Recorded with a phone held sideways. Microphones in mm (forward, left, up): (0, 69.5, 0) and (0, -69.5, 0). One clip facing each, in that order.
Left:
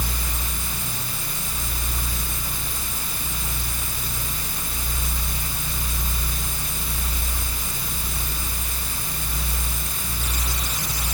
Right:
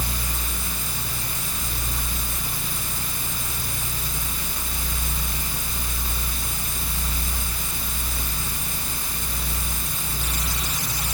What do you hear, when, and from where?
Only background noise.